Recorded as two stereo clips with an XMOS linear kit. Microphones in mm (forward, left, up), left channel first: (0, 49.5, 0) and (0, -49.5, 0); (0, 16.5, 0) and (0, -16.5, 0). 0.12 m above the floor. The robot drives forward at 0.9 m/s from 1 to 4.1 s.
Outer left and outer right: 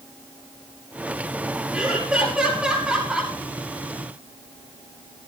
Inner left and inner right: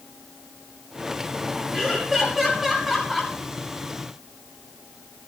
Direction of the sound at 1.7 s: 5° right (ahead or behind).